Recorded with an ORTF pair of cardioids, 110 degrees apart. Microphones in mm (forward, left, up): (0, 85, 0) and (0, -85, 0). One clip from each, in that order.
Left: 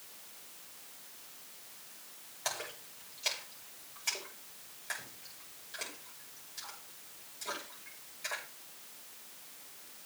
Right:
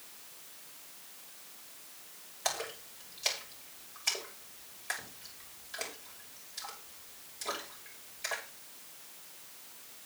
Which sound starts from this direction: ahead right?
A splash, at 2.5 s.